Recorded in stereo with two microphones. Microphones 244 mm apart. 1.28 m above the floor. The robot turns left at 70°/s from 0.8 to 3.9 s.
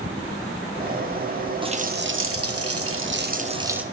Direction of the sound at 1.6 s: 20° right.